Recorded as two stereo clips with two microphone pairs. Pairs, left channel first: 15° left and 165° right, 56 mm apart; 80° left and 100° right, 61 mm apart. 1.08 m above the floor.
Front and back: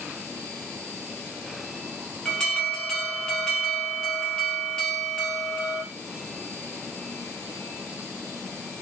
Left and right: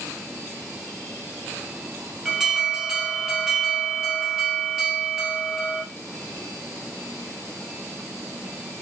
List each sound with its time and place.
2.2 s an alarm: 40° right, 1.1 m